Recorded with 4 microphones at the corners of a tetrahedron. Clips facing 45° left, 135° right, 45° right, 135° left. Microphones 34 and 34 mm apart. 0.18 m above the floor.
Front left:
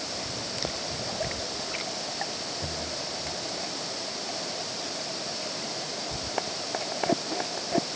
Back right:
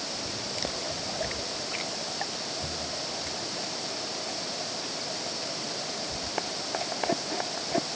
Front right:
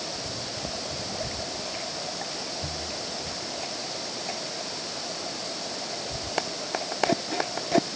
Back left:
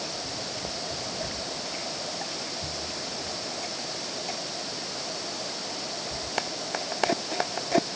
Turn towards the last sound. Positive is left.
No sound to turn to.